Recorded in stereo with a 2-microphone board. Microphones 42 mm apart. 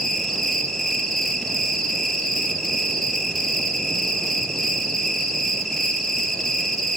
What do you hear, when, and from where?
0.0 s an insect: 5° left (ahead or behind), 3.5 m